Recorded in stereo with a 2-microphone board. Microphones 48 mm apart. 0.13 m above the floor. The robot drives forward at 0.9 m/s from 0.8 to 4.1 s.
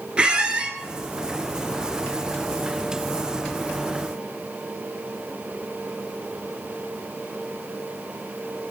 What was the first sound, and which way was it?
A squeak, 25° right (ahead or behind).